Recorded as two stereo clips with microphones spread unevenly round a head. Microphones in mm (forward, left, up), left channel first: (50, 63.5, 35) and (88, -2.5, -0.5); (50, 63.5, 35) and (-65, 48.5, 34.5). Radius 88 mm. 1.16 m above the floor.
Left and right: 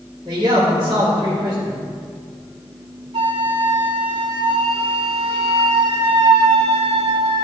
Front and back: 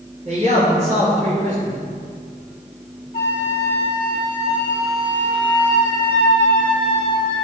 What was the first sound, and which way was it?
A man speaking, 140° right.